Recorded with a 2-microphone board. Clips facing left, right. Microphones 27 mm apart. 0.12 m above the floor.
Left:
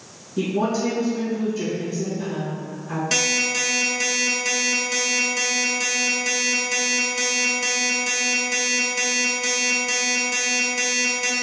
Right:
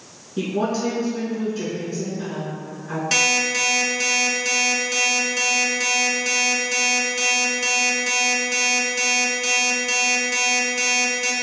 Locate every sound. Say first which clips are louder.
0.4 s a woman speaking: left 1 dB; 30° right (ahead or behind), 1.1 m
3.1 s an alarm clock: right 3 dB; 10° right (ahead or behind), 0.6 m